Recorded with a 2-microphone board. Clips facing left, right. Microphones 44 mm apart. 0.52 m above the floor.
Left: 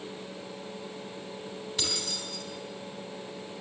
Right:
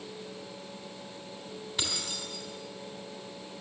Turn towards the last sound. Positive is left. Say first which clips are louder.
# even
turn(degrees=-10)  # may be behind; listen again after turning